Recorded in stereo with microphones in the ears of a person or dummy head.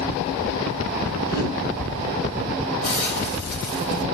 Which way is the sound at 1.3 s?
55° left (ahead or behind).